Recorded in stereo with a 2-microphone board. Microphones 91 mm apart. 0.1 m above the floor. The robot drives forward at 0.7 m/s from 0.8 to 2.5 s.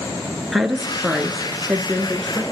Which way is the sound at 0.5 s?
Centre (ahead or behind).